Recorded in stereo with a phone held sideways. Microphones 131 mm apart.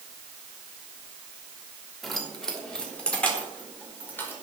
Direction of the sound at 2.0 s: Centre (ahead or behind).